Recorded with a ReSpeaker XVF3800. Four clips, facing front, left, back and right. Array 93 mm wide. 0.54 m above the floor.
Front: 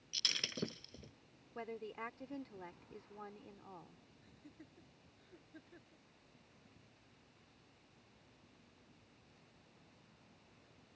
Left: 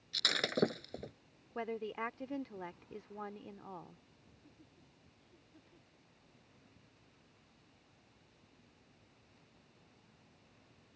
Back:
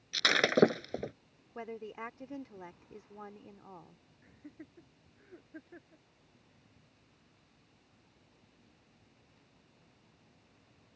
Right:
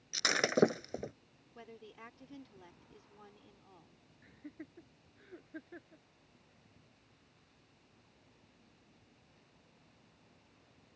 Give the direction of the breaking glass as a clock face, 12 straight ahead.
5 o'clock.